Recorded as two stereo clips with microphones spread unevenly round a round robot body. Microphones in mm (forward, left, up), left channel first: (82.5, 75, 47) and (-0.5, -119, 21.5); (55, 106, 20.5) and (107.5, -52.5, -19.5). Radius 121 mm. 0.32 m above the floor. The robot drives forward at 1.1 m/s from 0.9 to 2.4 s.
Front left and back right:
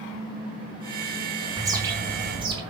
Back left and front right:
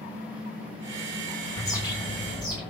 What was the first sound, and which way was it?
A bird, 170° right.